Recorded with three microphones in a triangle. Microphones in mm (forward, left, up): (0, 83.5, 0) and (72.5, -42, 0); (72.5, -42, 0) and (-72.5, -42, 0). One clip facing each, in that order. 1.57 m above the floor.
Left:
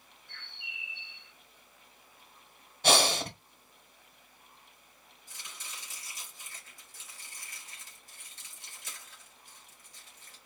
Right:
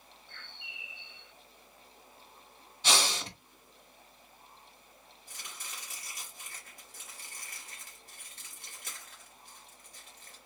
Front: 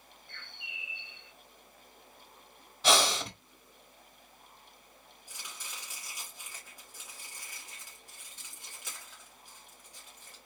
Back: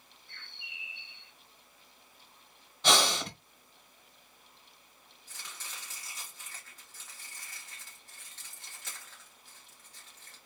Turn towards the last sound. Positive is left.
turn(degrees=-75)